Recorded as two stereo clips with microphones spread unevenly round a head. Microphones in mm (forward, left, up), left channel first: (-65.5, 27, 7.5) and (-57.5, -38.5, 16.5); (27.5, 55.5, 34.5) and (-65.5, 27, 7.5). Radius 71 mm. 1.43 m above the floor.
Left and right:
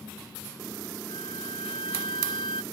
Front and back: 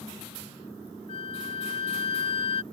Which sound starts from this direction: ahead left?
A flute, at 1.1 s.